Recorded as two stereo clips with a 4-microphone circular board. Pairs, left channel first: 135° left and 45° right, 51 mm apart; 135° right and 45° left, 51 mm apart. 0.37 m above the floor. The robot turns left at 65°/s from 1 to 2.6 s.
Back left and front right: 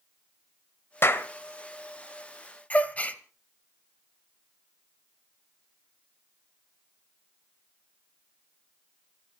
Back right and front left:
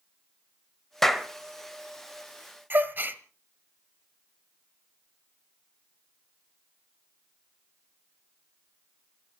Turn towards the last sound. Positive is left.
turn(degrees=80)